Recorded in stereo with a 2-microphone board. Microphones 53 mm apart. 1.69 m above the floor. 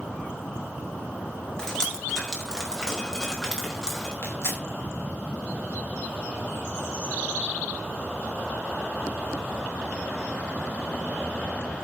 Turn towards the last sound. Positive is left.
turn(degrees=60)  # may be behind; listen again after turning